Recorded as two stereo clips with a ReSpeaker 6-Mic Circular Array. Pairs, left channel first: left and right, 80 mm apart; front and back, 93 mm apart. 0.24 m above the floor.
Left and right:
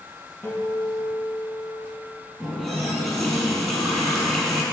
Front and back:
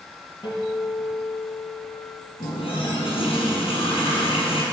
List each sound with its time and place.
0.4 s a guitar: 35° left, 3.5 m
2.4 s a running tap: 5° left, 4.5 m